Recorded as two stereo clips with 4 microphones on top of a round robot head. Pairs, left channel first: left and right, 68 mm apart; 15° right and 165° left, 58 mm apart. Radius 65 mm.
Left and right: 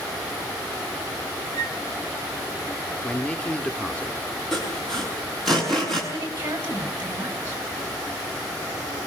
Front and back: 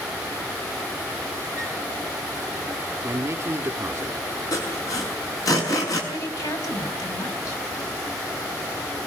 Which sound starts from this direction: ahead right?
A woman speaking, at 6.1 s.